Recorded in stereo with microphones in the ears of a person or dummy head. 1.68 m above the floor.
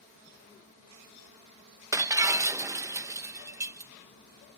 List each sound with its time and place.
1.9 s breaking glass: 20° right (ahead or behind)